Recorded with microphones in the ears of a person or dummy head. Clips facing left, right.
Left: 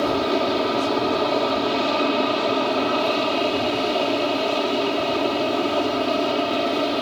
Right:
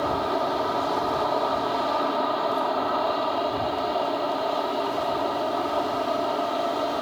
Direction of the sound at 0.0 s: 35° left (ahead or behind).